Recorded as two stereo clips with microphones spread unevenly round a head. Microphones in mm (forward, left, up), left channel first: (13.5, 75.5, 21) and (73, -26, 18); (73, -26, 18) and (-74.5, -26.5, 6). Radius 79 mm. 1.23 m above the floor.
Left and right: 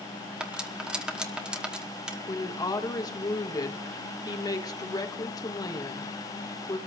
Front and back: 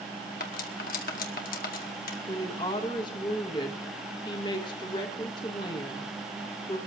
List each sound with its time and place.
0.4 s cutlery clinking: 20° left, 1.2 m
2.3 s a woman speaking: 65° left, 1.2 m